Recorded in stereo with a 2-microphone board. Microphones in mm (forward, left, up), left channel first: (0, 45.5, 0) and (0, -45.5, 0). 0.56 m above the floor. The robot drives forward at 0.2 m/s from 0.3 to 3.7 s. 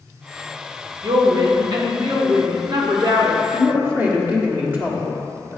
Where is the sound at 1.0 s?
55° right (ahead or behind), 1.2 m.